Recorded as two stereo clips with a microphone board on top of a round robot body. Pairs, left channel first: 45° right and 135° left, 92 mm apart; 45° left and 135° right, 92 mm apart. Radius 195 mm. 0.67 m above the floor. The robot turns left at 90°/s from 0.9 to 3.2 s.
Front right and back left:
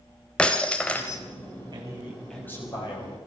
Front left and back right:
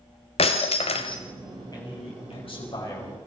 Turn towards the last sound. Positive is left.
turn(degrees=-40)